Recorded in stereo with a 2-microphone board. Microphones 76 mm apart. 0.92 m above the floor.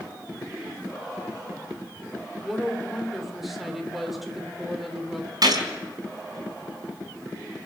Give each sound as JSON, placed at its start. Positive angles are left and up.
{"t": 2.4, "sound": "a woman speaking", "side_deg": 0, "distance_m": 3.5}
{"t": 5.4, "sound": "a gunshot", "side_deg": -60, "distance_m": 4.0}